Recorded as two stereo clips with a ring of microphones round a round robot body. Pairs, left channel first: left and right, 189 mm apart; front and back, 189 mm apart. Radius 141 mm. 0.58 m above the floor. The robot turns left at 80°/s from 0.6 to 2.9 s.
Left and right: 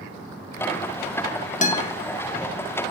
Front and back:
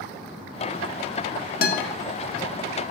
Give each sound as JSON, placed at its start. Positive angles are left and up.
{"t": 1.6, "sound": "a guitar", "azimuth_deg": 40, "distance_m": 0.7}